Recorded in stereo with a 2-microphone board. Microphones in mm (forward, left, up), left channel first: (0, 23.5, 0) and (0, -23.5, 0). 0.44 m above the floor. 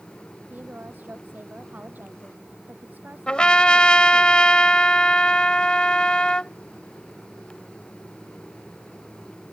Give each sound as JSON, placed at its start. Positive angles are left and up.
{"t": 0.5, "sound": "a woman speaking", "side_deg": -40}
{"t": 3.3, "sound": "a trumpet", "side_deg": 20}